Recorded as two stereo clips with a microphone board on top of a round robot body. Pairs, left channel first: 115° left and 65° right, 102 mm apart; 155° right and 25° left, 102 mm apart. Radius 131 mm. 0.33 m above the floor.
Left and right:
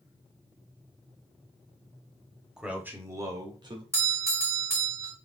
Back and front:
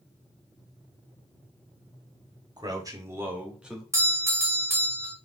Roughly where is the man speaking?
Ahead.